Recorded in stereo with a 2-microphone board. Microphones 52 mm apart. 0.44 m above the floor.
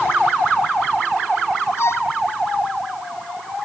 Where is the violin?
55° left (ahead or behind).